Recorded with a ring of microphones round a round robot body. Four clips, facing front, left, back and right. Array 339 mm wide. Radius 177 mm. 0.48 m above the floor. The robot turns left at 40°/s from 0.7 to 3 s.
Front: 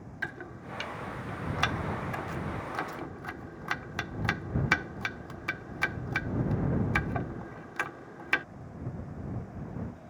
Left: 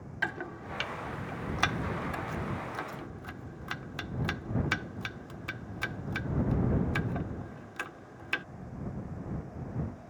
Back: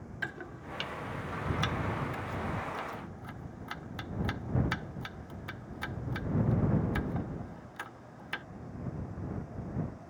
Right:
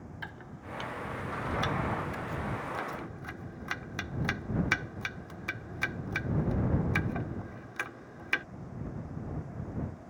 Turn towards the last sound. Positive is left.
turn(degrees=-5)